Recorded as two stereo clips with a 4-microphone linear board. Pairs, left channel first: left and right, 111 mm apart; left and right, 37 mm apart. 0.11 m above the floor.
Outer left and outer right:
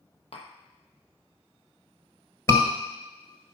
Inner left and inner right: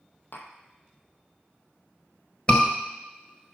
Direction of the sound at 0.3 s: 70° left (ahead or behind).